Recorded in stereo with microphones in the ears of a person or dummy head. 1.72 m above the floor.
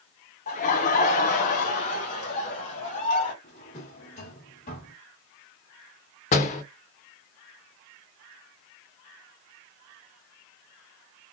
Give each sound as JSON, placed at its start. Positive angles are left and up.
{"t": 0.5, "sound": "laughter", "side_deg": 40, "distance_m": 0.7}
{"t": 3.4, "sound": "a drawer", "side_deg": 40, "distance_m": 2.5}
{"t": 6.3, "sound": "a door slam", "side_deg": 40, "distance_m": 0.8}